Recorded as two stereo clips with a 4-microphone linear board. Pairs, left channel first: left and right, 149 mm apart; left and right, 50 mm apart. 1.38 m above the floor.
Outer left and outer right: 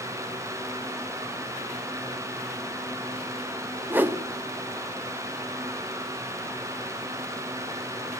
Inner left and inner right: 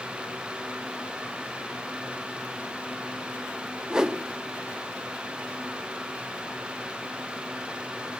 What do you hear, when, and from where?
3.9 s a whoosh: 15° right (ahead or behind), 0.6 m